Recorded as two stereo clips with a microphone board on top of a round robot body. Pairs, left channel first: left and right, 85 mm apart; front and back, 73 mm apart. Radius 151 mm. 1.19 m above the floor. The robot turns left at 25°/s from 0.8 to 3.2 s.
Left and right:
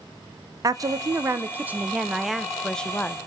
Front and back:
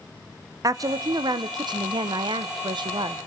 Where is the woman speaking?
140° right, 0.8 m; by 3.2 s 160° left, 0.8 m.